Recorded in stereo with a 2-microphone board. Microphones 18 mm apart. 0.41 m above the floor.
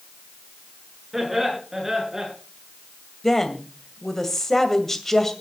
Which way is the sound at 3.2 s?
20° left (ahead or behind).